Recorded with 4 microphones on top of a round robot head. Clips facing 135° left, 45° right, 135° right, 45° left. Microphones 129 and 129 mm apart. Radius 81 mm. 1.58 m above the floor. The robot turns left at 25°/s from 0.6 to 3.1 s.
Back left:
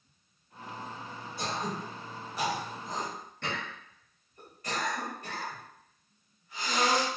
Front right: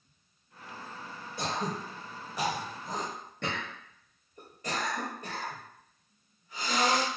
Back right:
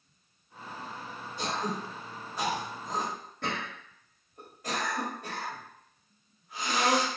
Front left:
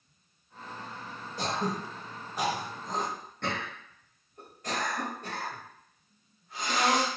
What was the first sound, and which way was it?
Throat clearing, 5° right.